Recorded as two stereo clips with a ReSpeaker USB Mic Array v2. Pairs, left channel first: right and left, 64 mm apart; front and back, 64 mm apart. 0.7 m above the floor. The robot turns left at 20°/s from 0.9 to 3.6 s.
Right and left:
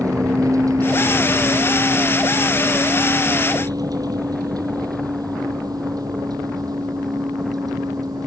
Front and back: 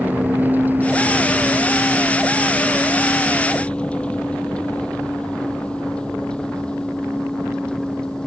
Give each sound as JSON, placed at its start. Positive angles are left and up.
{"t": 0.0, "sound": "a vehicle", "azimuth_deg": 115}